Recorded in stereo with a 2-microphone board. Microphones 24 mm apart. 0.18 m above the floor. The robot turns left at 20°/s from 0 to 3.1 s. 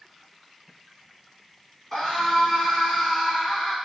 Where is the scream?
20° left (ahead or behind), 1.4 m; by 3.8 s centre (ahead or behind), 1.4 m.